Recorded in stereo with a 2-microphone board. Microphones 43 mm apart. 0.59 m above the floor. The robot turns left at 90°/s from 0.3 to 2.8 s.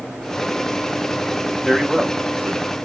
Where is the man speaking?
Straight ahead, 1.0 m; by 2.8 s 95° right, 1.0 m.